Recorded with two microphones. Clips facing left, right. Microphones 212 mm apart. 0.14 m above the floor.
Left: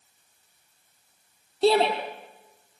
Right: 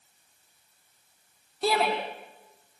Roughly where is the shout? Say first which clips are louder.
Left 6 dB; left.